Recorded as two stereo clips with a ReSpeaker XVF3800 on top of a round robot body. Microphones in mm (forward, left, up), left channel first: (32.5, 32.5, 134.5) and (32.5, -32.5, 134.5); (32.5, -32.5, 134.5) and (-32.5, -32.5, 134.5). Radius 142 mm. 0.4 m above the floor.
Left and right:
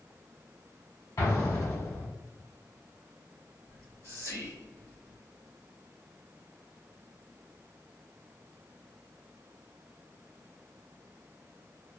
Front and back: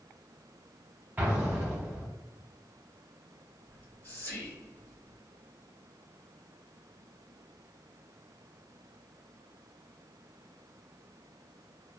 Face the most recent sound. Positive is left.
turn(degrees=60)